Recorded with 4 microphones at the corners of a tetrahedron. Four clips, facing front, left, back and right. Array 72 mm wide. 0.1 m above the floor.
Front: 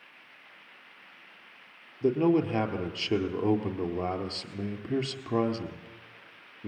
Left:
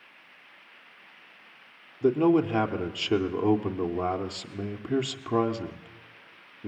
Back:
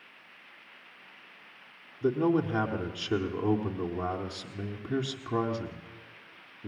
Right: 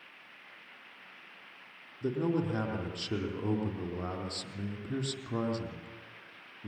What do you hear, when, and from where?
2.0 s a man speaking: 60° left, 3 m